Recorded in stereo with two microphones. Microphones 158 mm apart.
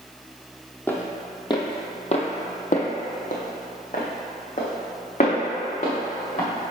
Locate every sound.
0.9 s footsteps: 15° left (ahead or behind), 1.0 m; by 6.5 s 45° left (ahead or behind), 2.5 m